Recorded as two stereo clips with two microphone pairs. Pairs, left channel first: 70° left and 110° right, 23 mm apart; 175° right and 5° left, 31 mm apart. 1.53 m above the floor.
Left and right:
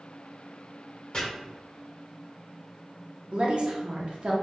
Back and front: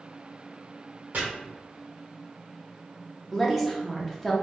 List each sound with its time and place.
1.1 s chopping: 20° left, 1.1 m
3.3 s a woman speaking: 85° right, 0.7 m